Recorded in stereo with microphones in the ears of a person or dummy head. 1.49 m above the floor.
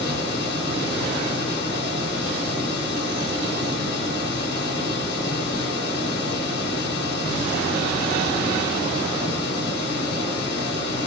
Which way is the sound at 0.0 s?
65° left (ahead or behind).